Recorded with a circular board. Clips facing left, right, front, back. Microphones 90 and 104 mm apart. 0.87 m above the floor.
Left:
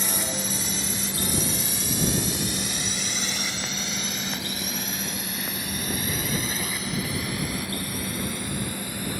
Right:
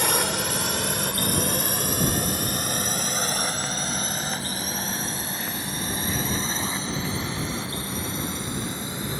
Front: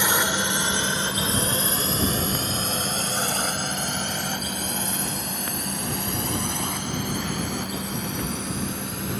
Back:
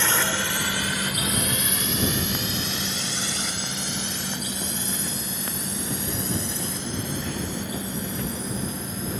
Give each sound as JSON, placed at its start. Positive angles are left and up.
{"t": 0.0, "sound": "a drone", "azimuth_deg": -75}